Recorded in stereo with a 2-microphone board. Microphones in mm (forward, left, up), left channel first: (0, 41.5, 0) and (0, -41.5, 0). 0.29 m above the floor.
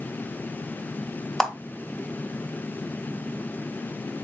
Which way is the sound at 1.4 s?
10° left (ahead or behind).